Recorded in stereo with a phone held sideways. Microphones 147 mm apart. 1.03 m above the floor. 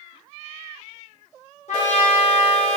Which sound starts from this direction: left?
A trumpet, at 1.7 s.